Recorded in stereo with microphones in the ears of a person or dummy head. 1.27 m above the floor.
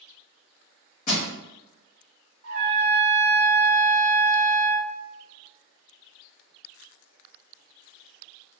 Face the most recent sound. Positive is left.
turn(degrees=-40)  # may be behind; listen again after turning